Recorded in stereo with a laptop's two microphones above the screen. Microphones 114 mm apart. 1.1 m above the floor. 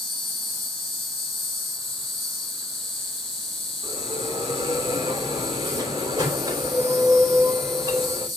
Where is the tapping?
No tapping in this recording.